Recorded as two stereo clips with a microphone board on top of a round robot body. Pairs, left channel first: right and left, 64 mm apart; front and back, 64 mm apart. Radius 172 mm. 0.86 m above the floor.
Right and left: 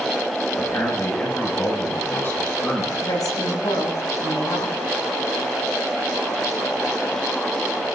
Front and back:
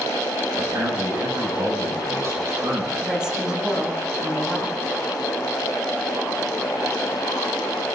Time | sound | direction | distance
0.5 | a man speaking | 140° right | 6 m
3.0 | a woman speaking | 100° right | 8.5 m